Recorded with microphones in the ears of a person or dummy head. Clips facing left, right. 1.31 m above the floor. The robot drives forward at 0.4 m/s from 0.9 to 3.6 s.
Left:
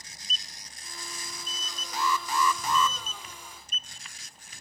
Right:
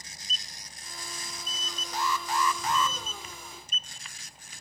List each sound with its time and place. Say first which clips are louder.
1.9 s an alarm: left 1 dB; 60° left (ahead or behind), 0.6 m; by 3.0 s 70° left (ahead or behind), 0.6 m